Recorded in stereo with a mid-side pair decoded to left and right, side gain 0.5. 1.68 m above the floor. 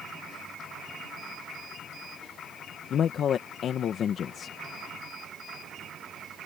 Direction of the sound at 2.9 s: 55° left.